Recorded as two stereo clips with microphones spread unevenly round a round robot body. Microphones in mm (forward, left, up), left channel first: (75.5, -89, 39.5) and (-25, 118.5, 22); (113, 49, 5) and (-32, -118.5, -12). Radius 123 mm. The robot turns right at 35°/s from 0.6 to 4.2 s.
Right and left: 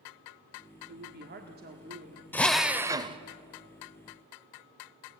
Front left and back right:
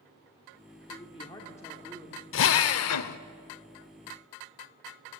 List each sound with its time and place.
0.9 s a woman speaking: 105° left, 1.5 m; by 2.2 s 155° left, 1.5 m
2.3 s a drill: 20° left, 0.7 m; by 3.2 s 50° left, 0.7 m